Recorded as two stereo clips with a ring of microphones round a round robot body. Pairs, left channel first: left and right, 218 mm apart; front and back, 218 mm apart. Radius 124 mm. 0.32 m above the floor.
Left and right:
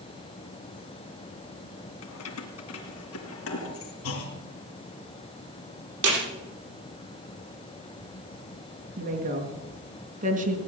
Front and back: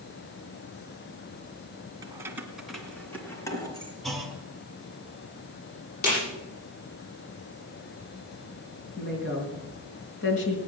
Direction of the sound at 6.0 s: 55° right.